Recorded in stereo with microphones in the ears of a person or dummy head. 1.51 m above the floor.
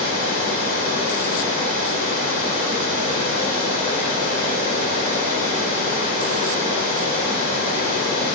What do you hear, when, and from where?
0.0 s running water: 50° left (ahead or behind), 2 m